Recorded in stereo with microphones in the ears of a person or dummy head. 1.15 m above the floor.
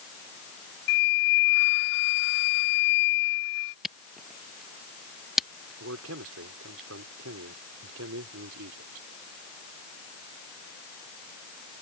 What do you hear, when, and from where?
0.9 s a flute: 55° left (ahead or behind)
3.8 s a camera shutter: 5° right (ahead or behind)
5.8 s a man speaking: 80° right